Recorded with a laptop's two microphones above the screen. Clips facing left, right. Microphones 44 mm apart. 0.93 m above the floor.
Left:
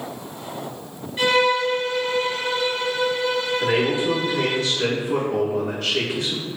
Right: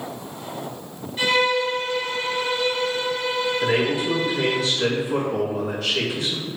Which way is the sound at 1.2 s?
20° left (ahead or behind).